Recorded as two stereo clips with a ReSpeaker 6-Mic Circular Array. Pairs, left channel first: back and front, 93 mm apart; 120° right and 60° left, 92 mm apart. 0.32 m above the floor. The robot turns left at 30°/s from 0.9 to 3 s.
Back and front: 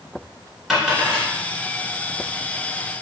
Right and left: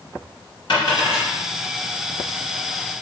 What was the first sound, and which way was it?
A dropped coin, 85° right.